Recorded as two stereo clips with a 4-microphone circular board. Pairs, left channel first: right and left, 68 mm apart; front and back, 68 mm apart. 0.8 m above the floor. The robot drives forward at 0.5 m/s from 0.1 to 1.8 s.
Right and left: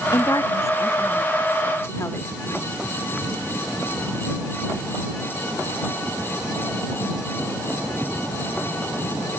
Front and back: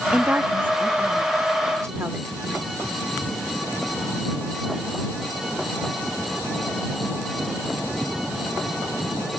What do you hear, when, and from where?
0.1 s a woman speaking: 110° right, 1.2 m; by 2.6 s 140° right, 1.7 m